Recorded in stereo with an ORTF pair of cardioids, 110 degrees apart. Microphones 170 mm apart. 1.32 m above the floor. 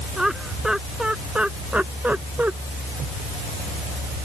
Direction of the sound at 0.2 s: 5° right.